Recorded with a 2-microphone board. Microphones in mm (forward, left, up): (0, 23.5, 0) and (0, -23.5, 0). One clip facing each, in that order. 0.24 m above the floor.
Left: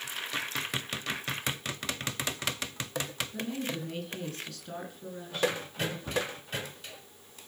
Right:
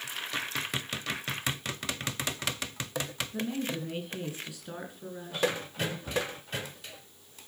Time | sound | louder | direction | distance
3.3 | a woman speaking | right 3 dB | 15° right (ahead or behind) | 3 m
6.1 | a cupboard door | even | 45° left (ahead or behind) | 2 m